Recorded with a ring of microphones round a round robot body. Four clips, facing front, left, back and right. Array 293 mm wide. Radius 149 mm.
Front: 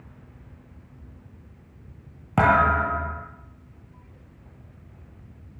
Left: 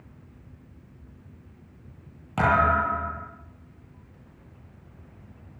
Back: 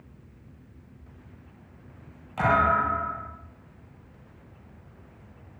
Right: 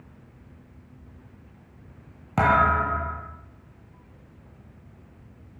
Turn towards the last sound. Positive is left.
turn(degrees=-15)